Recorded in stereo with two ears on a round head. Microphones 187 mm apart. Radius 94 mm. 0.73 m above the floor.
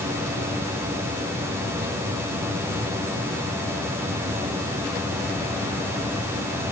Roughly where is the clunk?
No clunk in this recording.